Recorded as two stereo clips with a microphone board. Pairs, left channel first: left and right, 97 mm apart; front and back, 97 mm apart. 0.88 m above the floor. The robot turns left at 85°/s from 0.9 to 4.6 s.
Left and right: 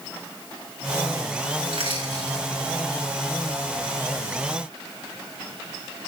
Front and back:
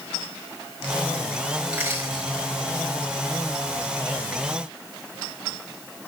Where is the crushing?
95° right, 4.5 m; by 2.4 s 160° right, 4.5 m.